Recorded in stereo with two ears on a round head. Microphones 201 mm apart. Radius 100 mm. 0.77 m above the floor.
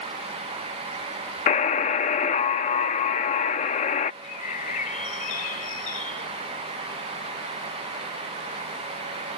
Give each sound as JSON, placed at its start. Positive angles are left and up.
{"t": 1.5, "sound": "a buzzer", "side_deg": 30}
{"t": 4.2, "sound": "a bird", "side_deg": 35}